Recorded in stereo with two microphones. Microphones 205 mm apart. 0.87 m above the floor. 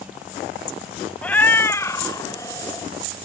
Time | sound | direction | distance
1.2 | a cat meowing | 5° left (ahead or behind) | ?